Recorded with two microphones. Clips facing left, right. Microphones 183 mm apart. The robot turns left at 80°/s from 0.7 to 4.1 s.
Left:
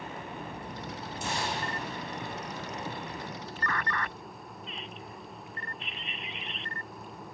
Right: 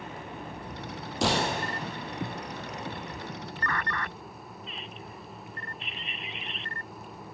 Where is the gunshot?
105° right, 2.0 m; by 1.8 s 150° right, 2.0 m.